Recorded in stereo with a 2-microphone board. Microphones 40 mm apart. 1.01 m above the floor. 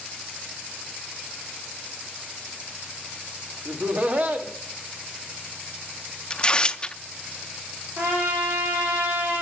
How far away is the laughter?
About 1.8 m.